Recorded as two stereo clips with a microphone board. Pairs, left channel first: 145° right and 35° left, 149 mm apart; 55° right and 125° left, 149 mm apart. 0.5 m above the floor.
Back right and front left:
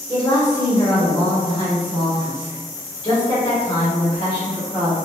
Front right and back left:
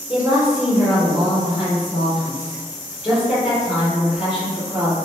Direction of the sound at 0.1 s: 170° right.